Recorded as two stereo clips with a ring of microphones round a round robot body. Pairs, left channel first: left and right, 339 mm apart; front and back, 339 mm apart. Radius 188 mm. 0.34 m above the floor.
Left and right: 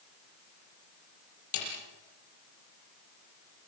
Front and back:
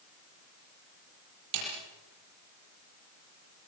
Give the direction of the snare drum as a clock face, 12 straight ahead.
7 o'clock.